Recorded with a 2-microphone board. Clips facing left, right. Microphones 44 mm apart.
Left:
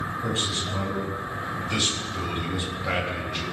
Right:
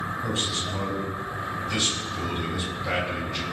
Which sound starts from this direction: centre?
A man speaking, at 0.2 s.